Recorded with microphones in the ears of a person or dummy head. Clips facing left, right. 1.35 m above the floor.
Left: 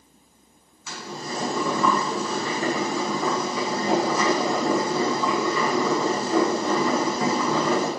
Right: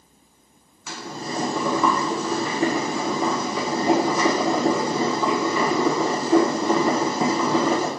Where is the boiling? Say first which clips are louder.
Right 2 dB; 65° right (ahead or behind), 1.3 m.